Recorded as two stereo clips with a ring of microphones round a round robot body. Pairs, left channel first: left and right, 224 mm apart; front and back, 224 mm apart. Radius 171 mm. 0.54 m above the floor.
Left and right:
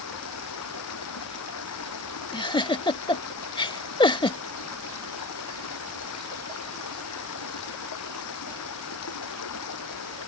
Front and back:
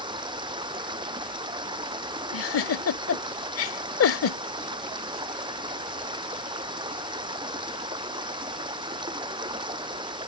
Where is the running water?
110° left.